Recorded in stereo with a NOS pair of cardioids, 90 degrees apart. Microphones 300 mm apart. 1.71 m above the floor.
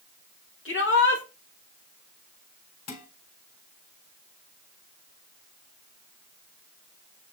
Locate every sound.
0.7 s a shout: 45° left, 2.5 m
2.9 s dishes clattering: 60° left, 4 m